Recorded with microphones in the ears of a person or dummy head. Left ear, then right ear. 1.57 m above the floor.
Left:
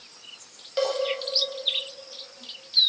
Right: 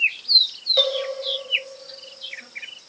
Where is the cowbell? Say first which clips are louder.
Right 5 dB; 15° right (ahead or behind), 1.1 m.